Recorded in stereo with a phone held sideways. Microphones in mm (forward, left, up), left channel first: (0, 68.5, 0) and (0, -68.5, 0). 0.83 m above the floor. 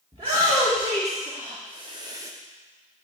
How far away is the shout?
About 1.8 m.